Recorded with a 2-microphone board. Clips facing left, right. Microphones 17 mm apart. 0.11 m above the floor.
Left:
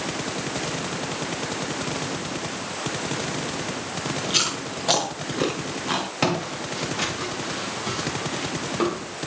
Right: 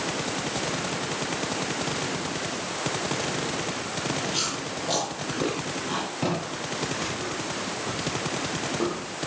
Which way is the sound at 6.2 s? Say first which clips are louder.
Left 4 dB; 70° left (ahead or behind).